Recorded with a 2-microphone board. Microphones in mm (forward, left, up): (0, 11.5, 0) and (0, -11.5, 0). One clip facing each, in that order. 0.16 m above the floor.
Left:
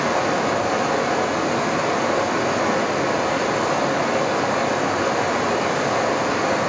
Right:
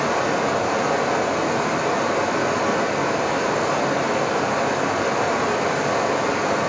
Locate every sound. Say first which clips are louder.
0.0 s running water: left 1 dB; 10° left (ahead or behind), 0.8 m